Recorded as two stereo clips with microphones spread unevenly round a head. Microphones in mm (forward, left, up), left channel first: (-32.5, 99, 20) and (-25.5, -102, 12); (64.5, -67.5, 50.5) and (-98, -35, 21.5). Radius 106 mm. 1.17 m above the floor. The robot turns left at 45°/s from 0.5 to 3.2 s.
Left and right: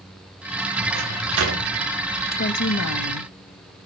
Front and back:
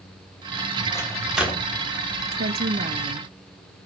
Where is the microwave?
85° right, 3.5 m; by 1.7 s 120° right, 3.5 m.